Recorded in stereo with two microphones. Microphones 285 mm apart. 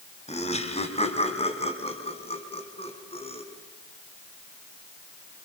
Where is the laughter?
20° left (ahead or behind), 3.5 m.